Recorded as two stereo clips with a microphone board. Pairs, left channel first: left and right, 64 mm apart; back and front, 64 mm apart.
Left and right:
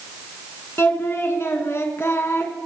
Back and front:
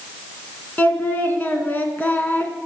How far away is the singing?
About 1.6 m.